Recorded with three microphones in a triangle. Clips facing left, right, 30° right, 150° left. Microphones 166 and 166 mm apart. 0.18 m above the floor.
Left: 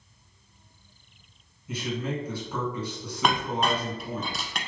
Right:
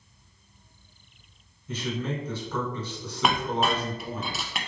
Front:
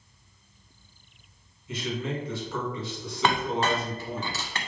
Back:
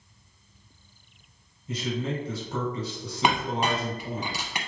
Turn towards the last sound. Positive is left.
turn(degrees=-170)